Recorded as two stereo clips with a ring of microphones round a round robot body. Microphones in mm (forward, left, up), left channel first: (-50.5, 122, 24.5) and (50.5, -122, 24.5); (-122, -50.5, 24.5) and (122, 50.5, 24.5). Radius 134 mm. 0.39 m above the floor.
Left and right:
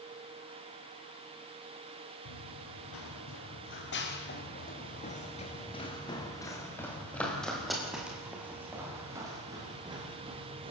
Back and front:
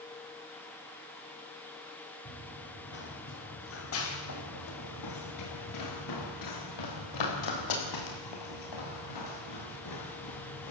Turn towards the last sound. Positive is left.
turn(degrees=-140)